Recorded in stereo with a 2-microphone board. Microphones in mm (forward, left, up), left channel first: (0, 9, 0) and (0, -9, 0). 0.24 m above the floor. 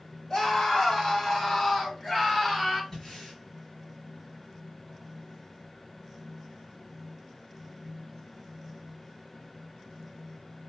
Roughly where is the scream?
Left.